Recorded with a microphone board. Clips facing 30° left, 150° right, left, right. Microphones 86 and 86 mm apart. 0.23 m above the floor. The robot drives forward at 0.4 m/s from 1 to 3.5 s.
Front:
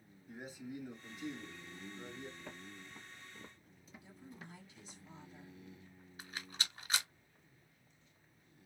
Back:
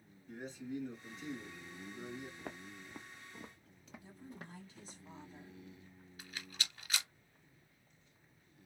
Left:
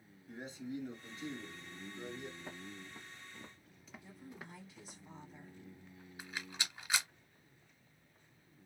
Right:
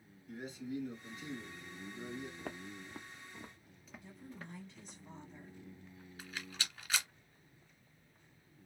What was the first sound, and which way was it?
A man speaking, 100° left.